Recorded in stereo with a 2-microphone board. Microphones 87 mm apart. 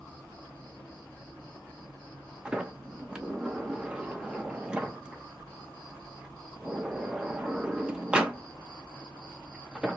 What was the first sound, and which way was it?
An insect, 20° left (ahead or behind).